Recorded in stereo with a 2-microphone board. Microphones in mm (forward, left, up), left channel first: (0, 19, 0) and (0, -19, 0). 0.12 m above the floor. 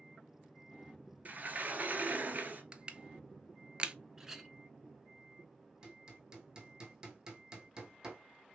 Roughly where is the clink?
Centre.